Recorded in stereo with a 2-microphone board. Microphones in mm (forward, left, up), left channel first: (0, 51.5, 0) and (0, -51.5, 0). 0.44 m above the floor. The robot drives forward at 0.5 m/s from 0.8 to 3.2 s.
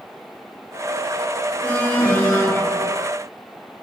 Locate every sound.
1.6 s an alarm: 20° left (ahead or behind), 4 m